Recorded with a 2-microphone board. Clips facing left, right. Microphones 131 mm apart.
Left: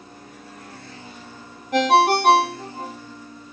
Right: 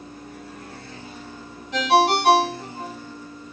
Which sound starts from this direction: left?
A ringtone, at 1.7 s.